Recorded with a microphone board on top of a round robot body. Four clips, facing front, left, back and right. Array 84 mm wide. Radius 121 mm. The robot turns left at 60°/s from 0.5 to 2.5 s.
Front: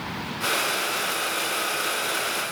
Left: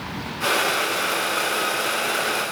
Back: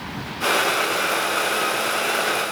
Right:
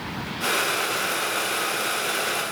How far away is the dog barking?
No dog barking in this recording.